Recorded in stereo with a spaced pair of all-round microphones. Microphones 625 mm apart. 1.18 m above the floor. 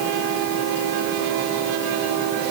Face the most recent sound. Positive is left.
No sound to turn to.